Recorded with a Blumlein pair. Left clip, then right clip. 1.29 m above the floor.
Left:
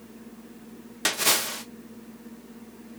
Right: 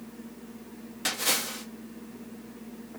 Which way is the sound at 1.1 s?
25° left.